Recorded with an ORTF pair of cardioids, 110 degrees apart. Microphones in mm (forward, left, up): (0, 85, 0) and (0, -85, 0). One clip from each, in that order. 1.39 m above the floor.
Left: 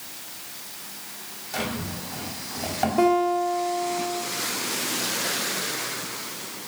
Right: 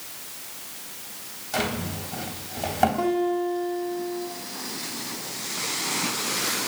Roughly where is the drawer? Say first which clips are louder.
Right 3 dB; ahead right.